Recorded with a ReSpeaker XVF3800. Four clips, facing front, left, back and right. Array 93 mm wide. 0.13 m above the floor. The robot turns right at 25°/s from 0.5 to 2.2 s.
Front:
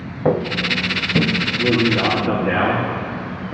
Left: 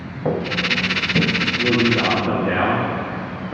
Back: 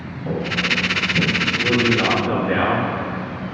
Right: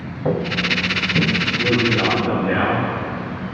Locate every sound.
0.2 s footsteps: 5° left, 1.0 m; by 1.3 s 25° left, 1.6 m
1.6 s a man speaking: 25° left, 3.5 m; by 3.6 s 40° left, 3.5 m